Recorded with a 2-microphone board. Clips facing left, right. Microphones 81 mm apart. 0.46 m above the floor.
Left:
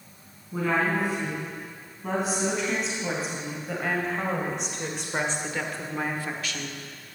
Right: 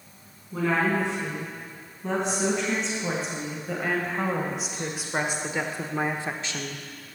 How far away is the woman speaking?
About 4 m.